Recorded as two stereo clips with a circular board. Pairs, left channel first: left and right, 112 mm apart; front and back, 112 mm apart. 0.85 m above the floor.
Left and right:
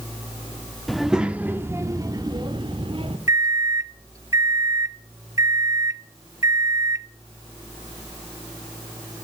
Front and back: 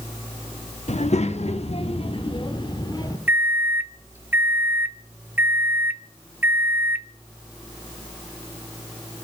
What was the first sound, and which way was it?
A child speaking, straight ahead.